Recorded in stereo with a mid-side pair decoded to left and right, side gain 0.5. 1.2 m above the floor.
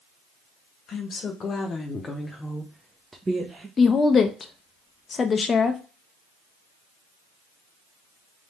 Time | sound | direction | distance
0.9 | a woman speaking | 55° left | 1.3 m
3.8 | a woman speaking | 35° left | 0.6 m